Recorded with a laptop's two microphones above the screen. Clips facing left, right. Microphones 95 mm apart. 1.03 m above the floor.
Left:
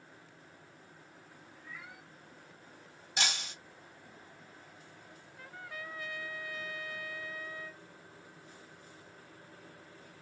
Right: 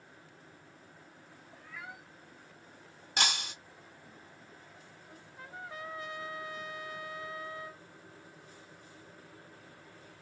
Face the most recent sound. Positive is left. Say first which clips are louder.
# right 4 dB
turn(degrees=-25)  # may be behind; listen again after turning